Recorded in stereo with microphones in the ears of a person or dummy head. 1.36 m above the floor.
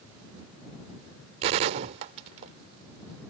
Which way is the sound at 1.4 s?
30° right (ahead or behind).